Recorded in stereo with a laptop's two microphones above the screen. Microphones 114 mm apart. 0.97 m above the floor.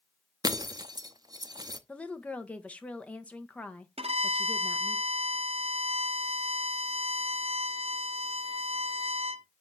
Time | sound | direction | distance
0.4 | breaking glass | 35° right (ahead or behind) | 0.5 m
1.9 | a woman speaking | 10° left (ahead or behind) | 1.1 m
4.0 | a violin | 60° right (ahead or behind) | 0.7 m